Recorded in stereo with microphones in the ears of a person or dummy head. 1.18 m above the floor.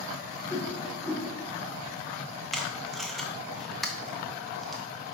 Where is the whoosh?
10° left (ahead or behind), 1.3 m.